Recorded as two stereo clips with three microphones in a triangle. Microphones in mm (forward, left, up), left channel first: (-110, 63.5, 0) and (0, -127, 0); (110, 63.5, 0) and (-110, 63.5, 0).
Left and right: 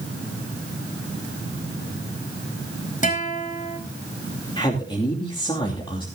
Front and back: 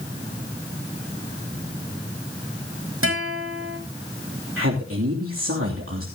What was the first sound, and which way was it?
A guitar, 175° left.